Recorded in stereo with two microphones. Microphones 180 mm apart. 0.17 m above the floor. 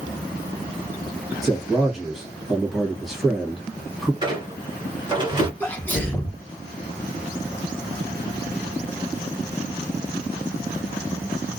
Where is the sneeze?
10° left (ahead or behind), 1.4 m.